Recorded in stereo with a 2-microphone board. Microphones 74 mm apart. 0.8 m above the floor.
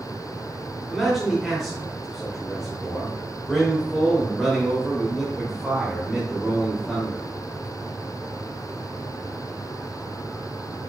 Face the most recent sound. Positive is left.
turn(degrees=0)  # may be behind; listen again after turning